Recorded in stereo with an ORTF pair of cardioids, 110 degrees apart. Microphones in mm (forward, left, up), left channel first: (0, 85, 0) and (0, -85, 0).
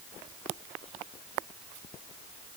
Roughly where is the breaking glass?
No breaking glass in this recording.